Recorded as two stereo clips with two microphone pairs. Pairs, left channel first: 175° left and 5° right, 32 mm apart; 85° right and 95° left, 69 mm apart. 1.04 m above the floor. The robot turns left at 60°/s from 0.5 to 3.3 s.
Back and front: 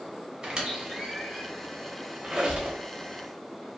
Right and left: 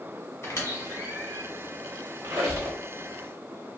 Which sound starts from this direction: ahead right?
A squeak, at 0.4 s.